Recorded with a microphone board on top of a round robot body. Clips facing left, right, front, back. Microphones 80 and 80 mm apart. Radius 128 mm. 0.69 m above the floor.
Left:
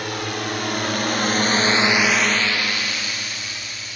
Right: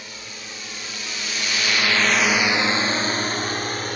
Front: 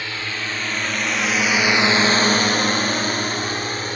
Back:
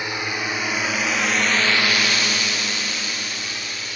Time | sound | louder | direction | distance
0.0 | a drone | left 13 dB, back 2 dB | 105° left | ?